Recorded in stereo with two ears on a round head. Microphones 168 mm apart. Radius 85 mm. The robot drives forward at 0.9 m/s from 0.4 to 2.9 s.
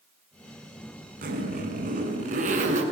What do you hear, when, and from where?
1.2 s a zipper: 50° right (ahead or behind), 7 m; by 2.8 s 45° right (ahead or behind), 7.5 m